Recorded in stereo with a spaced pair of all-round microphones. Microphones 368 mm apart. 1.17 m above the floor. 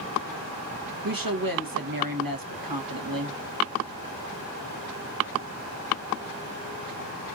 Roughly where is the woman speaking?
Right.